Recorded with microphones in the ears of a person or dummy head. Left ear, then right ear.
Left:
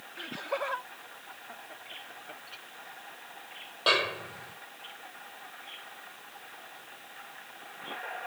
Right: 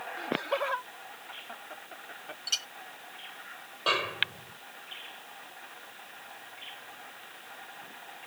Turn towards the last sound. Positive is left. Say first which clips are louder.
# left 2 dB
turn(degrees=5)  # may be behind; listen again after turning